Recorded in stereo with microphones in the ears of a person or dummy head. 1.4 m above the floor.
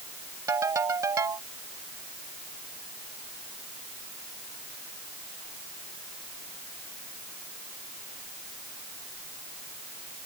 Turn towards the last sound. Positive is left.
turn(degrees=-20)  # may be behind; listen again after turning